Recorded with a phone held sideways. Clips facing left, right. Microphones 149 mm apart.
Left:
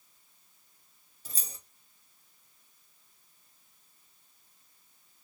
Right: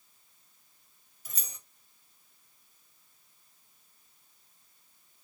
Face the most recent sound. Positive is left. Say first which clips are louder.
# left 2 dB
turn(degrees=30)  # may be behind; listen again after turning